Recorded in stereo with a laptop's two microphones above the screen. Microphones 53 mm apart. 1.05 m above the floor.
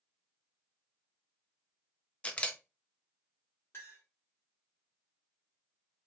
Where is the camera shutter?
25° left (ahead or behind), 0.8 m.